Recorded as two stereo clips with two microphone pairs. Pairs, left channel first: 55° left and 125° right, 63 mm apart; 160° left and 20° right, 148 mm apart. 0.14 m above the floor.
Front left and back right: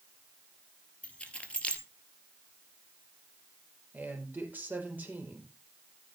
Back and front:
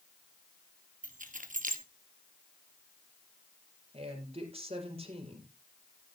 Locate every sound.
1.0 s keys jangling: 15° right, 1.8 m
3.9 s a man speaking: 65° right, 4.5 m